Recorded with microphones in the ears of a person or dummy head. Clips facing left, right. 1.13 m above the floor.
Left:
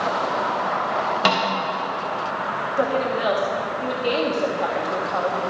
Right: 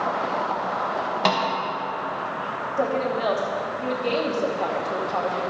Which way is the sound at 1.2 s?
5° left (ahead or behind).